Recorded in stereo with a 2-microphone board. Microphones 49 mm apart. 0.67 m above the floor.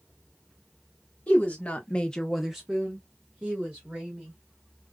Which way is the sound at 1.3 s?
30° left (ahead or behind).